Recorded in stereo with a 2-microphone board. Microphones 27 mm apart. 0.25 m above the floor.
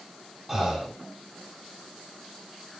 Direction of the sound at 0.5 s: Centre (ahead or behind).